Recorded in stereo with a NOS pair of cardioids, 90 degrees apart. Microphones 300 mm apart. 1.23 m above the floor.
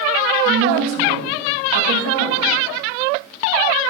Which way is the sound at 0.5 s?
70° right.